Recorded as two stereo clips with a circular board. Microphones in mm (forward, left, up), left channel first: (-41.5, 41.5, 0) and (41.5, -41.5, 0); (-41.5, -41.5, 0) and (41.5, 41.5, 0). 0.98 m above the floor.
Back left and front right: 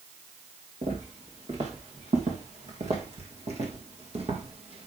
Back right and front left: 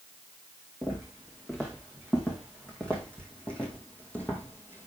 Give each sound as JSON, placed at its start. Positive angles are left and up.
{"t": 0.8, "sound": "footsteps", "azimuth_deg": -50, "distance_m": 4.0}